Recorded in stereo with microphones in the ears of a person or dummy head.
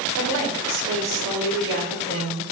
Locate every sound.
0.2 s a woman speaking: 60° right (ahead or behind), 1.2 m